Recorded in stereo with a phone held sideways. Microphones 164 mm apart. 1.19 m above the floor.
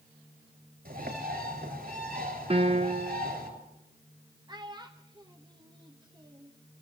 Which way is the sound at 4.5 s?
25° right (ahead or behind).